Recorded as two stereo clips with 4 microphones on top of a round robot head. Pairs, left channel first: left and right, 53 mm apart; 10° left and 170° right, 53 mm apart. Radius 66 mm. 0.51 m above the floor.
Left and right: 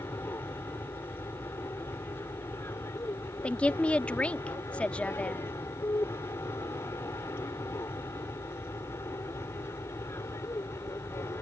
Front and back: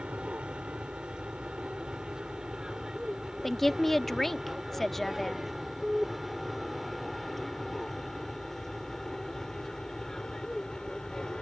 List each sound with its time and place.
0.0 s an aircraft: 125° left; by 11.4 s 85° left
3.4 s a woman speaking: 90° left